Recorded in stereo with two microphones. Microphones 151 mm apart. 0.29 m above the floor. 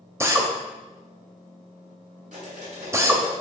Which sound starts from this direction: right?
Cutlery clinking, at 2.3 s.